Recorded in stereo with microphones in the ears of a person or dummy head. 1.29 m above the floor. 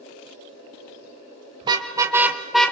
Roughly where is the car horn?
Right.